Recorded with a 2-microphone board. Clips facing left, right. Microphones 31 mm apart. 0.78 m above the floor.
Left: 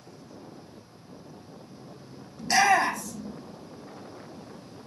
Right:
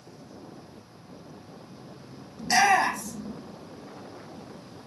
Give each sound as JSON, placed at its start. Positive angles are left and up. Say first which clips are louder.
{"t": 2.4, "sound": "a shout", "louder": "even", "side_deg": -15, "distance_m": 0.7}